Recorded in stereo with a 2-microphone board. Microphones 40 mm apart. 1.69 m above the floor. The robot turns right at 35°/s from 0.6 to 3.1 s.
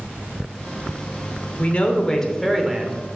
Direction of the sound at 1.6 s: 145° left.